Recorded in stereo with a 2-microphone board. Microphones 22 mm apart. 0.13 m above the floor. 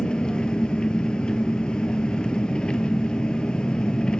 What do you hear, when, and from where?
0.0 s an engine running: 45° left (ahead or behind), 0.7 m